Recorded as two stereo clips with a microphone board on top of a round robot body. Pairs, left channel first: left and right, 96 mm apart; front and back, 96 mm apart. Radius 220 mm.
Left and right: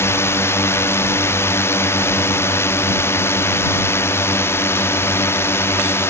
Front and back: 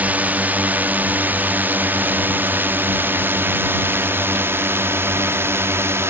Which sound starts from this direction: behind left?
A drone, at 0.0 s.